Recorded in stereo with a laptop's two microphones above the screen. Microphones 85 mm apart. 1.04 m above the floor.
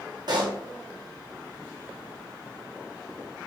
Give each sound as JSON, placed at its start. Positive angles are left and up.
{"t": 0.3, "sound": "a pop", "side_deg": -60, "distance_m": 0.6}